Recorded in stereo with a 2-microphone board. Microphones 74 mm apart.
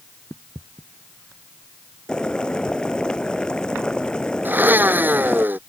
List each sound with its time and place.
2.1 s boiling: 10° left (ahead or behind)
4.5 s a blender: 25° right (ahead or behind)